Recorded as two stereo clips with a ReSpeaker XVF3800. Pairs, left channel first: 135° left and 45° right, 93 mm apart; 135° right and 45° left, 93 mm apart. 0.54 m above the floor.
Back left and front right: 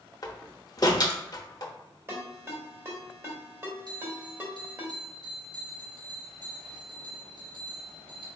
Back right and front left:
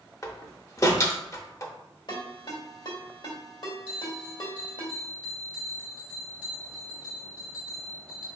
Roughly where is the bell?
Ahead right.